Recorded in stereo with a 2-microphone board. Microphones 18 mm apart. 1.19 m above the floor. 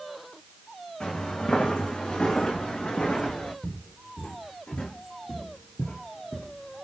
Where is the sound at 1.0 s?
70° left (ahead or behind), 6 m; by 3.5 s 75° left (ahead or behind), 7.5 m.